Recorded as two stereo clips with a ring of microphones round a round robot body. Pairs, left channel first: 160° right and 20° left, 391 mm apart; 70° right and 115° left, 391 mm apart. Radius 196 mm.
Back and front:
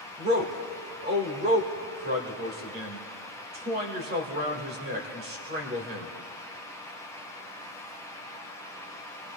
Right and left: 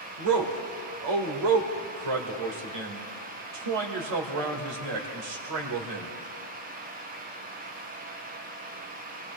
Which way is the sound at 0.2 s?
90° left.